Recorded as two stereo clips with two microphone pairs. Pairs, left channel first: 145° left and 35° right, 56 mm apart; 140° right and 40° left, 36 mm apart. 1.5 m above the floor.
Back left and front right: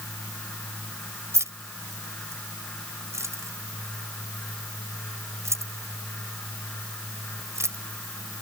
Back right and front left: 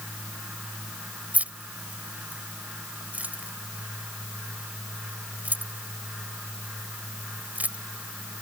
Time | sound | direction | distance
1.3 | keys jangling | 5° right | ?